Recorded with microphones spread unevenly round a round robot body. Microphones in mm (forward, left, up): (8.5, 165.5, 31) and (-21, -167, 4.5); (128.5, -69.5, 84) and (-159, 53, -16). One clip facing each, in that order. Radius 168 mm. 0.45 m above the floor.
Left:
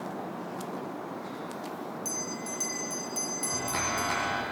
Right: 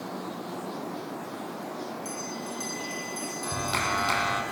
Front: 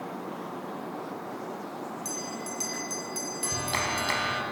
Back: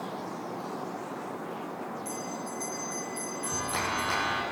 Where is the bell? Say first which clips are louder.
Right 1 dB, even; 15° left, 3 m.